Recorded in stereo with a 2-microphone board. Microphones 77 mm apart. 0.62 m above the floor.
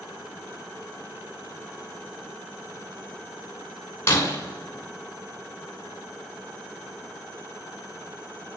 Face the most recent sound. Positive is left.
turn(degrees=35)  # may be behind; listen again after turning